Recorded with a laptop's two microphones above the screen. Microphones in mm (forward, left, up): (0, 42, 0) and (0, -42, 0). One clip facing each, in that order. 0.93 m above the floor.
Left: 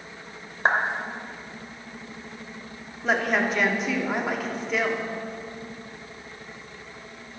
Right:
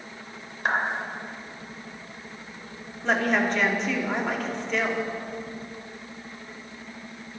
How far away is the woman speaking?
About 2.5 m.